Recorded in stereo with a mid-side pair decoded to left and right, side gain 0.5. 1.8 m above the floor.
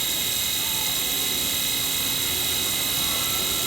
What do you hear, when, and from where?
0.0 s a machine running: 30° right